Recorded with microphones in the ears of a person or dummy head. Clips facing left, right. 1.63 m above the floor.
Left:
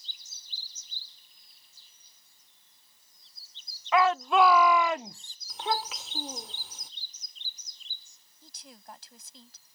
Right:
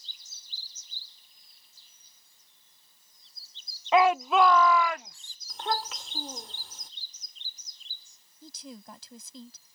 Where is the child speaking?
5° left (ahead or behind).